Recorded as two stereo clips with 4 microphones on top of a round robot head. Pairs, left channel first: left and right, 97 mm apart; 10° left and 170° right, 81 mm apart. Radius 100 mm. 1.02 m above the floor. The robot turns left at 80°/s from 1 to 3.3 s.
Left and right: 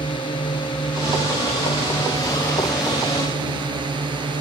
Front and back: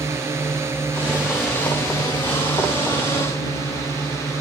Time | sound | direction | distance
0.0 | a drone | 130° left | ?